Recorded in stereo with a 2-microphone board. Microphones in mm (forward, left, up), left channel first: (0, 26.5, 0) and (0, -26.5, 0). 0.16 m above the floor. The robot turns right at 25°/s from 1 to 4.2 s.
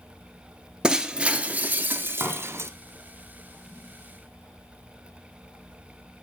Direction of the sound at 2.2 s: 30° right (ahead or behind).